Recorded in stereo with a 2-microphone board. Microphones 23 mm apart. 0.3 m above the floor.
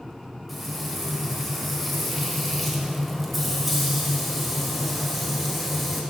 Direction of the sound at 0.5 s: Centre (ahead or behind).